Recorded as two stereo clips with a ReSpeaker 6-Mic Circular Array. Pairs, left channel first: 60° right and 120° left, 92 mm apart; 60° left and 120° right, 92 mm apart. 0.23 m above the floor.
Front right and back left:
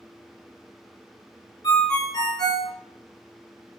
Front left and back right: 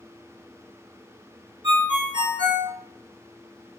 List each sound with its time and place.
1.6 s a ringtone: 90° right, 1.1 m